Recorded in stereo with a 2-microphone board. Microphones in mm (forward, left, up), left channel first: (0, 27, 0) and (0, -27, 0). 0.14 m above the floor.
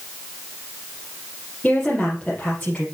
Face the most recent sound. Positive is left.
turn(degrees=15)  # may be behind; listen again after turning